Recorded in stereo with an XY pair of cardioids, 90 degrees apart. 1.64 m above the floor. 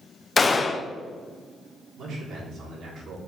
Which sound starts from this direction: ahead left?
A gunshot, at 0.4 s.